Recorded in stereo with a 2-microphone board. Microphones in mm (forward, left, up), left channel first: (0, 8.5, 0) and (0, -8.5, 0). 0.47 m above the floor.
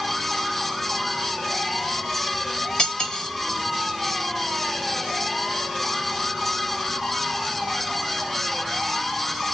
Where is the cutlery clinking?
70° left (ahead or behind), 1.6 m.